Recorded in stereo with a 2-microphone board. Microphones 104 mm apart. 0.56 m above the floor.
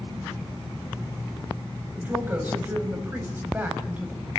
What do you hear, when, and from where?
1.9 s a woman speaking: 20° right (ahead or behind), 4 m